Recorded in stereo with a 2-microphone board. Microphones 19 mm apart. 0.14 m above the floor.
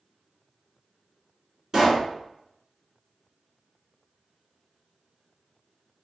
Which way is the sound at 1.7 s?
40° right (ahead or behind).